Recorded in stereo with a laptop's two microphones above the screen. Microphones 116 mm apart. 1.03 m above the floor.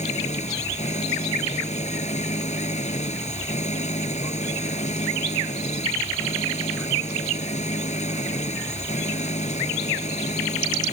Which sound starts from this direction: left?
An engine running, at 0.0 s.